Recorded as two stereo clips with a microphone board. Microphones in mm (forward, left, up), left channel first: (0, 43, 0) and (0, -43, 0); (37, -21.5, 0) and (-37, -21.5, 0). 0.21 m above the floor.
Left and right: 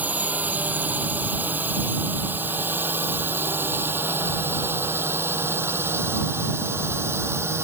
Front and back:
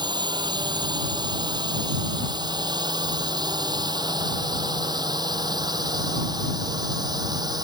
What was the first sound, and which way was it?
A drone, 160° right.